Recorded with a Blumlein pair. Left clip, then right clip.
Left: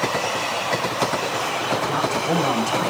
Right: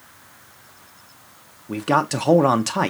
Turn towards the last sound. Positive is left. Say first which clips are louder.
# right 5 dB
turn(degrees=-65)